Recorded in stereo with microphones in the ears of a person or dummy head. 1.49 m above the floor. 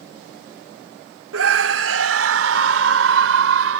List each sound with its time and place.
1.3 s a scream: 90° right; by 3.8 s 80° right